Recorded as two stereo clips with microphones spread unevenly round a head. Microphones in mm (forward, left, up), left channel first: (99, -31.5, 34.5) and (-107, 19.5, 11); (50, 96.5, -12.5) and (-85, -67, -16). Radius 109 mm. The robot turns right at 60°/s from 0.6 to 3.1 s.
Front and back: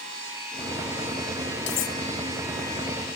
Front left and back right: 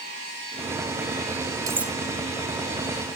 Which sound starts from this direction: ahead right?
Cutlery clinking, at 1.7 s.